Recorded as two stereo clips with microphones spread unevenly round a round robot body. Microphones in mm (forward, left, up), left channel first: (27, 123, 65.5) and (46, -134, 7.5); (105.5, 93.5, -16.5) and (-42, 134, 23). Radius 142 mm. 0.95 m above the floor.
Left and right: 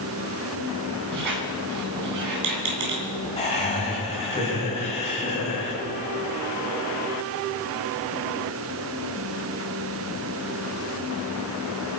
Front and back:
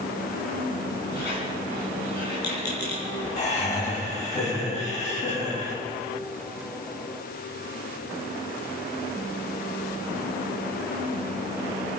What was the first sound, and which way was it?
A squeak, 75° right.